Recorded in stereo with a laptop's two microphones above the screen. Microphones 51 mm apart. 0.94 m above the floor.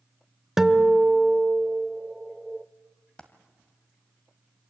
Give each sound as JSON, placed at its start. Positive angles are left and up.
{"t": 0.6, "sound": "a guitar", "side_deg": -5, "distance_m": 0.7}
{"t": 3.2, "sound": "a dropped coin", "side_deg": 20, "distance_m": 1.6}